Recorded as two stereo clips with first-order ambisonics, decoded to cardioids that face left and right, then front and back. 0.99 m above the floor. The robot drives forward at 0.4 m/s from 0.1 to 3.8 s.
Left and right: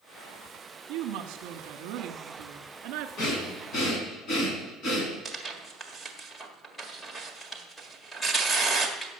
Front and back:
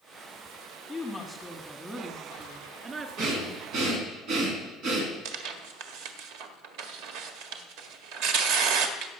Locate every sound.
0.9 s a woman speaking: 80° right, 1.4 m; by 3.1 s 115° right, 1.6 m
3.2 s breathing: 135° left, 3 m; by 5.1 s 140° left, 3 m
5.2 s tearing paper: 175° left, 1.6 m